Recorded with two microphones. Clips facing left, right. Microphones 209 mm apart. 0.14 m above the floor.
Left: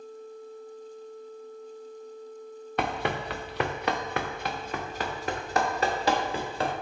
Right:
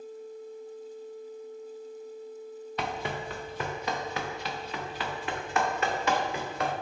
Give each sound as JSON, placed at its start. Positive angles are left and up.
{"t": 2.8, "sound": "running footsteps", "side_deg": 60, "distance_m": 0.7}